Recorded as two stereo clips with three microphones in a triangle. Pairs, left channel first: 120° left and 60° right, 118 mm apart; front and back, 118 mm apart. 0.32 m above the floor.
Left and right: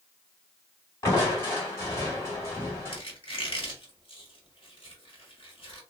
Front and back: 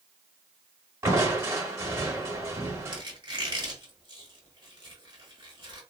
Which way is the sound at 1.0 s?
150° left.